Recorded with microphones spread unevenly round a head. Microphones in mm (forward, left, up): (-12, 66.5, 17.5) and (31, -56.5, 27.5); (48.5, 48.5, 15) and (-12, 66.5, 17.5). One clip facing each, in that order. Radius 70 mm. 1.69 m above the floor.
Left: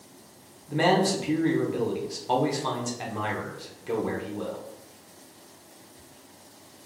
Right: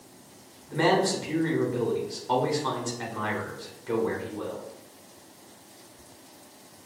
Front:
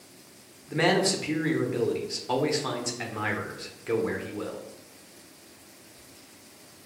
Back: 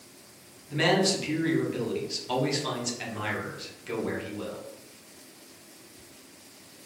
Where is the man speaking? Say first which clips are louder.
Left 1 dB, front 1 dB; 40° left, 1.1 m.